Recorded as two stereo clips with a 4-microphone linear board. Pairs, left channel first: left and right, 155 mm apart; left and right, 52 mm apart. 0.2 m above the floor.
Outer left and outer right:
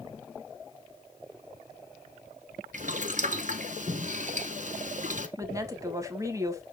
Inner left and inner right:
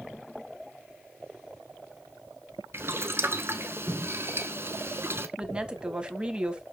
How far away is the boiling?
About 0.8 m.